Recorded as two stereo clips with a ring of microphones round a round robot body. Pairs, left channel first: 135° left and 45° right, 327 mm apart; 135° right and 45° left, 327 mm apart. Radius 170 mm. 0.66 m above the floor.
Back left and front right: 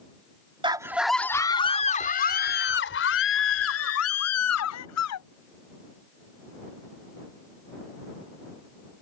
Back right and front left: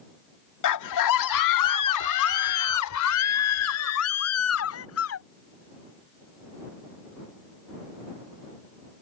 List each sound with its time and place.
0.6 s a scream: 120° right; by 5.2 s 175° left